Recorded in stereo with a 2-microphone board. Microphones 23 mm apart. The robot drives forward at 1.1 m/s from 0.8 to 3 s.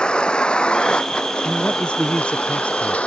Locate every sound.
0.0 s a vehicle: 45° left (ahead or behind); by 3.1 s 85° left
1.4 s a man speaking: 60° left (ahead or behind); by 3.0 s 65° left (ahead or behind)